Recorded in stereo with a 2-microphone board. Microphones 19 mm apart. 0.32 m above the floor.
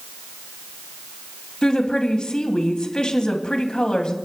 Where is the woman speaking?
50° left (ahead or behind), 2 m.